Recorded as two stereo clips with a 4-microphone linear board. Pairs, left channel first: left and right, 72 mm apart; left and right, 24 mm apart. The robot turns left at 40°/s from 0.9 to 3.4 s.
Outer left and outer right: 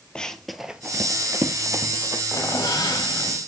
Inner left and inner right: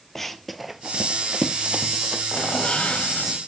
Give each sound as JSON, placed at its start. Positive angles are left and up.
{"t": 0.1, "sound": "running footsteps", "side_deg": 15, "distance_m": 0.8}
{"t": 2.3, "sound": "a squeak", "azimuth_deg": 125, "distance_m": 1.0}